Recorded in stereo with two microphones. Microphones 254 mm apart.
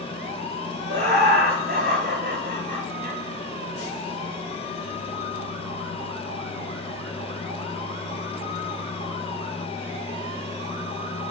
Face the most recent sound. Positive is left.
turn(degrees=-35)  # may be behind; listen again after turning